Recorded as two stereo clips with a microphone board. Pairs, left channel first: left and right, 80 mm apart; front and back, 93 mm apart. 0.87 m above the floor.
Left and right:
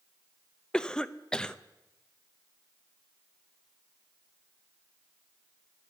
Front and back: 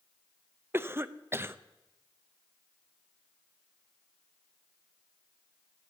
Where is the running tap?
No running tap in this recording.